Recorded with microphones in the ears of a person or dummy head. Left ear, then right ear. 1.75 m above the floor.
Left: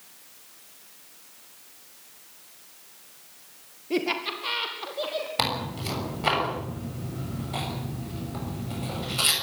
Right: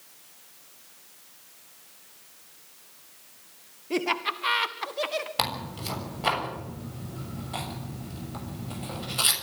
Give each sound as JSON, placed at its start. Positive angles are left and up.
{"t": 3.9, "sound": "laughter", "side_deg": -30, "distance_m": 1.5}
{"t": 5.4, "sound": "tearing paper", "side_deg": -10, "distance_m": 6.5}